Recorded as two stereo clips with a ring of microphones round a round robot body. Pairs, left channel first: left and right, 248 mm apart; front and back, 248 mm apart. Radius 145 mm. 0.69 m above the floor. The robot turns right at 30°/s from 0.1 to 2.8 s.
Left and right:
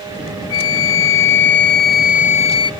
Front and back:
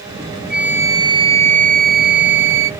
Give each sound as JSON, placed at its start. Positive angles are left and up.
{"t": 0.5, "sound": "a flute", "azimuth_deg": 95, "distance_m": 0.6}